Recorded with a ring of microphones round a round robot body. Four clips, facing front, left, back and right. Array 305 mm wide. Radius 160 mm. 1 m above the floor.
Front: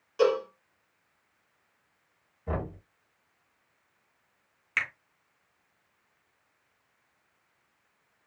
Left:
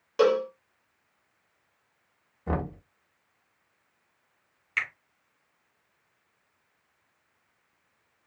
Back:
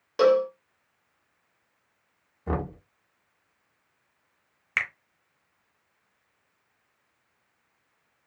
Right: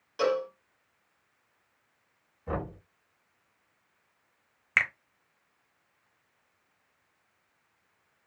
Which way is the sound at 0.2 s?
145° left.